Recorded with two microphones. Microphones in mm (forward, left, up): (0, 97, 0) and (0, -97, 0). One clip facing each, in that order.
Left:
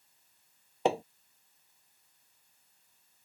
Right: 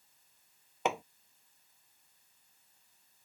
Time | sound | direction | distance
0.8 | hammering | 30° left (ahead or behind) | ?